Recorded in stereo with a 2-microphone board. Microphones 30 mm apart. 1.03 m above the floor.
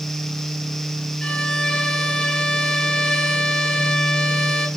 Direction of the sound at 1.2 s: 30° left (ahead or behind).